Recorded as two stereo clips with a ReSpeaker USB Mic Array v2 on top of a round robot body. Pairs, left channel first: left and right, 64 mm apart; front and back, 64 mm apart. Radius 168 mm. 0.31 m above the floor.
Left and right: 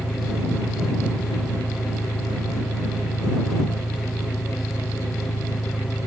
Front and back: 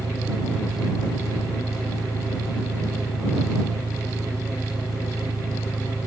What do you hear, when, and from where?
0.0 s an engine running: 145° left